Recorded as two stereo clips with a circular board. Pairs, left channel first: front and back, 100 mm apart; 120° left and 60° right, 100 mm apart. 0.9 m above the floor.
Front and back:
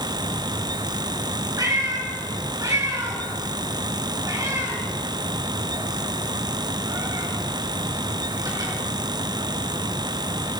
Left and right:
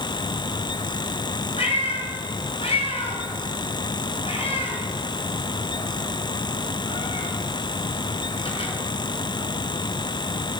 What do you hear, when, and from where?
1.6 s a cat meowing: 125° left, 2.5 m